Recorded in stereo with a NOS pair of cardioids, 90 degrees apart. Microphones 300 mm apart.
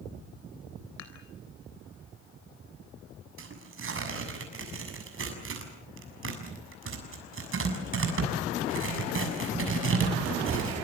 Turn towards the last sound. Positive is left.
turn(degrees=-45)